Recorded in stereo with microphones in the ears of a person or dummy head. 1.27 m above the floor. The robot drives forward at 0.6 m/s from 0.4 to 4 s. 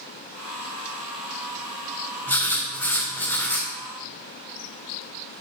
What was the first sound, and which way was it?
Writing, 15° left (ahead or behind).